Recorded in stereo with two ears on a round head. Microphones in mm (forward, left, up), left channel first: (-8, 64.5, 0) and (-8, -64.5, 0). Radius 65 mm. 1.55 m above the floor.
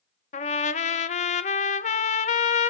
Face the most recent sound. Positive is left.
turn(degrees=50)  # may be behind; listen again after turning